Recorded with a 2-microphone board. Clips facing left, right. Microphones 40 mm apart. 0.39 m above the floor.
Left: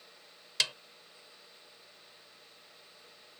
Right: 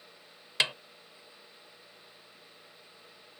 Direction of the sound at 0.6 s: 30° right (ahead or behind).